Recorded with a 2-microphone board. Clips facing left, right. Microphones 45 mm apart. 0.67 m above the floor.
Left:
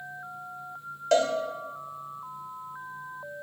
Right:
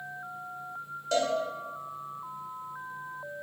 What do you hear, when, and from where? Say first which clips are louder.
1.1 s a cowbell: left 5 dB; 65° left (ahead or behind), 1.4 m